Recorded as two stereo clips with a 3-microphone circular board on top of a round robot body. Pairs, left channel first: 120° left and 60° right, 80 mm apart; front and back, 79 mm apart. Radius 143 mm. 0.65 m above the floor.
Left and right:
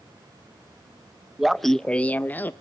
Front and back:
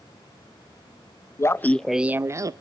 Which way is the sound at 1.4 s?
25° left.